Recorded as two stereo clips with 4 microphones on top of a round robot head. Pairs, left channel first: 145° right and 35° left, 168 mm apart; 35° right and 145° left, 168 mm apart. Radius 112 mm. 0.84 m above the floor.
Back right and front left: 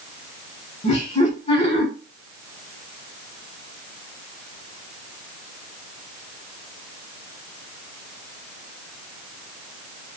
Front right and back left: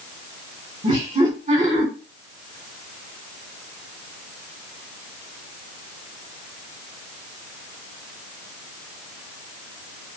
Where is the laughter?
170° right, 1.3 m.